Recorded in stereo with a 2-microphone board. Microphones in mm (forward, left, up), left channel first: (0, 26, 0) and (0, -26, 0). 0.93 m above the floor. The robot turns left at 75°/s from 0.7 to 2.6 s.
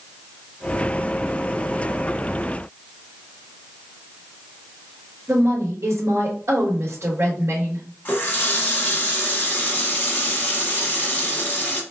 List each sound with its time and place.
5.3 s a woman speaking: 60° right (ahead or behind), 2 m
8.1 s a running tap: 35° left (ahead or behind), 1.0 m